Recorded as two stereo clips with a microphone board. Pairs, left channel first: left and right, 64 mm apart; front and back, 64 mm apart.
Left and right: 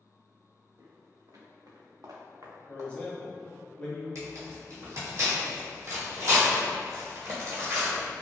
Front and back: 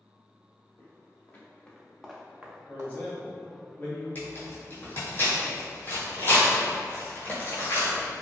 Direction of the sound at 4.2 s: 55° right.